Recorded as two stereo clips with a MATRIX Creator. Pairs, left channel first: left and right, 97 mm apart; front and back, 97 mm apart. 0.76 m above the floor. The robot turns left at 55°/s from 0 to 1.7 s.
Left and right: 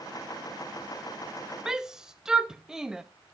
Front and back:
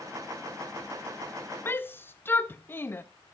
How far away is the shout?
About 0.5 m.